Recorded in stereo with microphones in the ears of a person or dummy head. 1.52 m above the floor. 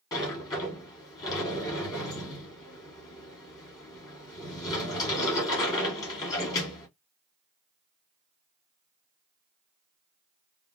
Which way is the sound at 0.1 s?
20° left (ahead or behind).